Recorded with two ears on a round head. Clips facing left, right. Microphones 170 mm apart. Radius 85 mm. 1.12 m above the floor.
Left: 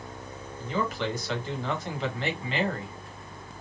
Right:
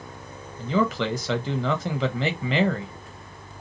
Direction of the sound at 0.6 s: 65° right (ahead or behind).